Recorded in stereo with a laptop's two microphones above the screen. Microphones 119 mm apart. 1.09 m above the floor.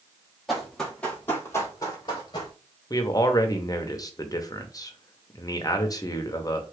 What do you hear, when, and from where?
0.5 s running footsteps: centre (ahead or behind), 1.7 m; by 2.5 s 40° left (ahead or behind), 1.8 m
2.9 s a man speaking: 30° left (ahead or behind), 0.5 m